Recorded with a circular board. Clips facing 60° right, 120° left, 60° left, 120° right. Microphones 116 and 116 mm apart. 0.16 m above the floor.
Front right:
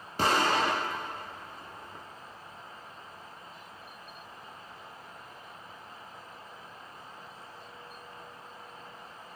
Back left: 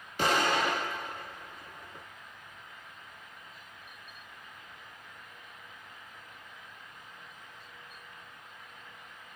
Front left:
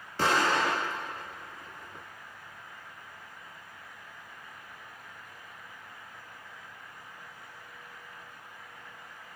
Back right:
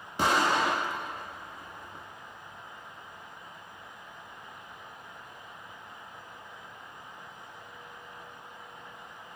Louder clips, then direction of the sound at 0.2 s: Front right 1 dB, back right 1 dB; 55° right.